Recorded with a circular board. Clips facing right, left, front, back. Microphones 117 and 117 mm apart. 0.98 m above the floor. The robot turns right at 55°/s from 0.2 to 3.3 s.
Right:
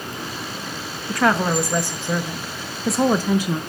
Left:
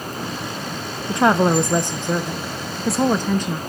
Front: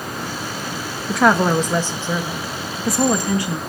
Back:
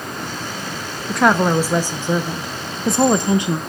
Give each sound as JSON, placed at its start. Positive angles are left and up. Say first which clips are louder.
{"t": 1.1, "sound": "a woman speaking", "louder": "left 3 dB, even", "azimuth_deg": 80, "distance_m": 0.7}